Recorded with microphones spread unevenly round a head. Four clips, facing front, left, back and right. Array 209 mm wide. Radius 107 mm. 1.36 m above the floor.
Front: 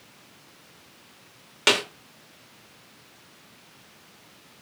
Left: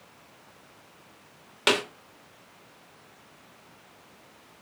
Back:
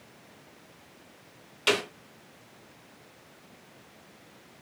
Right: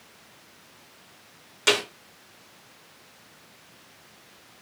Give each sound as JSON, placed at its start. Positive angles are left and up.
{"t": 1.7, "sound": "a snare drum", "azimuth_deg": 25, "distance_m": 2.5}